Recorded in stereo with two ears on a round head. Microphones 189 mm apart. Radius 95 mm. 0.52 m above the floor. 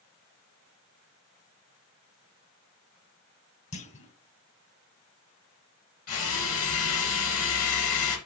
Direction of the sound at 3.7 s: 30° left (ahead or behind).